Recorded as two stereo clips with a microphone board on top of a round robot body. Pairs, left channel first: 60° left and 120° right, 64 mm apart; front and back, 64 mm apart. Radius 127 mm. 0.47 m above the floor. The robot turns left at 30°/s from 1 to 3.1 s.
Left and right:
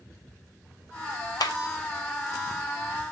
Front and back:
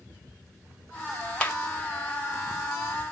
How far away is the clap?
About 2 m.